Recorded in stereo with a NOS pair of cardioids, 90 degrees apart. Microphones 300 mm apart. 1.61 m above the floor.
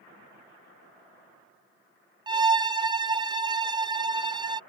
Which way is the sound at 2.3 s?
15° right.